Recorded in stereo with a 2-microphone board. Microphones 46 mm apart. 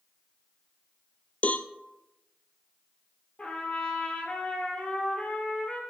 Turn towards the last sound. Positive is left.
turn(degrees=25)  # may be behind; listen again after turning